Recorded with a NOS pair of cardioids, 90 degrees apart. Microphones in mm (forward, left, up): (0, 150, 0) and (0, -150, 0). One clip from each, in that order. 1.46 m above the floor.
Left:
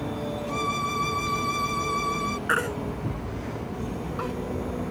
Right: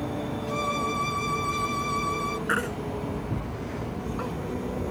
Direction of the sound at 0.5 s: 5° left.